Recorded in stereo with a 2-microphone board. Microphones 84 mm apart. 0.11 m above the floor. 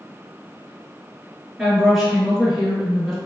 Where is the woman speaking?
Centre (ahead or behind), 1.6 m.